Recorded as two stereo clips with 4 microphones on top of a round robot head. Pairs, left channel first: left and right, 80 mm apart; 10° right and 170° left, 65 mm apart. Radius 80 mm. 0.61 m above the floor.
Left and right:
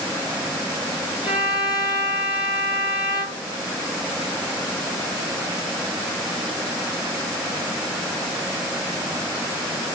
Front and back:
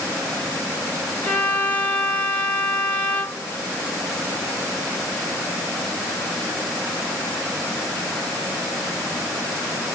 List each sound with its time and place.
1.2 s a violin: 55° left, 1.9 m